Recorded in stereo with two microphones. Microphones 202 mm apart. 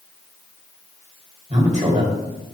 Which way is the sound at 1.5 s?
35° right (ahead or behind).